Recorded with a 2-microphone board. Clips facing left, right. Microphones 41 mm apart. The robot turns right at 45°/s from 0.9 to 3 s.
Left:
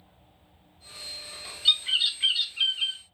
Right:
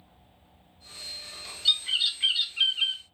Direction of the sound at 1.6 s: 155° left.